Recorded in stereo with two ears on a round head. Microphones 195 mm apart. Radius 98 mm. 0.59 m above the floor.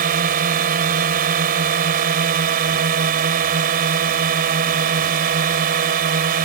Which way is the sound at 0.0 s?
45° right (ahead or behind).